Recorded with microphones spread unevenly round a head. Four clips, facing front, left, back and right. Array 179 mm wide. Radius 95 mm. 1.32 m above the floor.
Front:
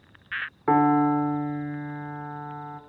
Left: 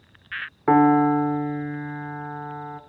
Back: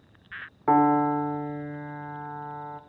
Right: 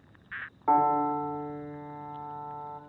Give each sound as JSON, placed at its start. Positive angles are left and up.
{"t": 0.7, "sound": "a piano", "azimuth_deg": 95, "distance_m": 1.6}